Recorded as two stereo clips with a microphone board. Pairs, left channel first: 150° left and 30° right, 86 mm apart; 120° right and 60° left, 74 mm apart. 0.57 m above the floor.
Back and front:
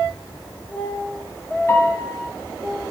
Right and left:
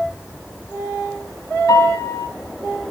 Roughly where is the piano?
Behind right.